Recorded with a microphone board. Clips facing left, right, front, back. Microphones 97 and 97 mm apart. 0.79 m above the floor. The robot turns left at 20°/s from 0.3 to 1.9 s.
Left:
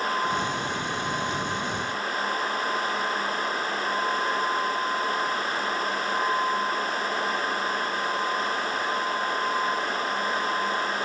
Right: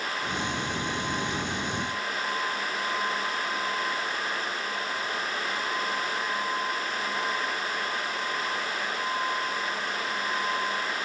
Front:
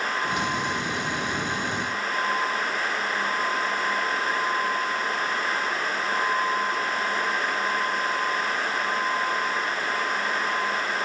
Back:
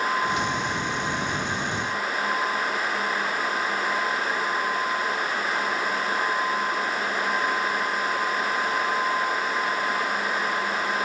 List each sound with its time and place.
Only background noise.